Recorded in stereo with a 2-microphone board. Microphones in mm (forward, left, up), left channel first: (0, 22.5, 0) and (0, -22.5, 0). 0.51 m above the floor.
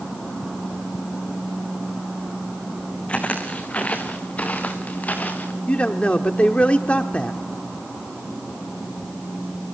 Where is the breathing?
No breathing in this recording.